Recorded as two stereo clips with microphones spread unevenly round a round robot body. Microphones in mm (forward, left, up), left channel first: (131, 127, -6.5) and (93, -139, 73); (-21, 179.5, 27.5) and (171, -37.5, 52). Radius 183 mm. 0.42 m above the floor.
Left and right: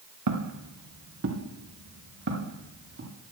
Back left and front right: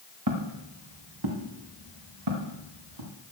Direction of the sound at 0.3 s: 85° right.